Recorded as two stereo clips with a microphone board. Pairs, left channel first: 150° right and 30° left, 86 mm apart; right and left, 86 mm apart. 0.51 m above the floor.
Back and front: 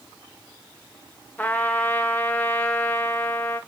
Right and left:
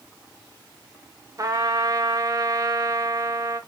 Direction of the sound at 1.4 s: 140° left.